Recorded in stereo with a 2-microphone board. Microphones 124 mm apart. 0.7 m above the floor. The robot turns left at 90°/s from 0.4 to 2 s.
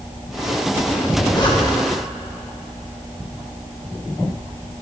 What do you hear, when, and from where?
1.0 s a zipper: 10° left (ahead or behind), 1.5 m; by 2.0 s 50° left (ahead or behind), 1.5 m